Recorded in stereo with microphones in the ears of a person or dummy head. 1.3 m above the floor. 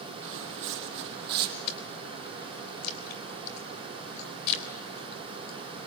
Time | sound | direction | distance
0.2 | footsteps | 70° right (ahead or behind) | 3.5 m
1.7 | chewing | 60° left (ahead or behind) | 3.5 m